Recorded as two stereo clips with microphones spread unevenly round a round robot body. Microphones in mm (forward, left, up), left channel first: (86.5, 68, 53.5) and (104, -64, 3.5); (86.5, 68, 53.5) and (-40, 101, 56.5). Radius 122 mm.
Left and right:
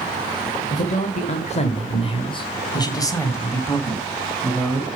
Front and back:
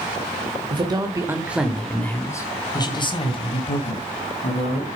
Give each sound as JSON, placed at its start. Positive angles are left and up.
{"t": 0.7, "sound": "a man speaking", "azimuth_deg": 140, "distance_m": 1.4}